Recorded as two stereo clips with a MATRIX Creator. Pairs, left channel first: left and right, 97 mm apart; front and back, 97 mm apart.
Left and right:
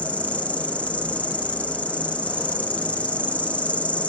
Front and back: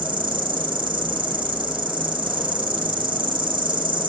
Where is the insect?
165° left, 1.5 m.